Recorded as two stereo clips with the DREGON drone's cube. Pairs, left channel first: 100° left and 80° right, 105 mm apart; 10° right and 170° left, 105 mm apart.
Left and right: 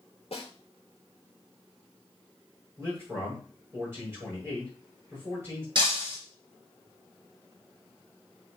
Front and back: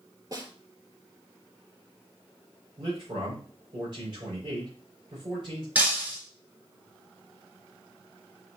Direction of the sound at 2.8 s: 150° right.